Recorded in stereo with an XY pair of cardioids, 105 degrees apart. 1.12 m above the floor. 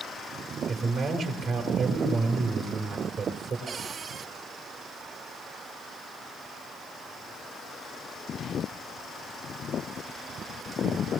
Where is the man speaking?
70° right, 4 m.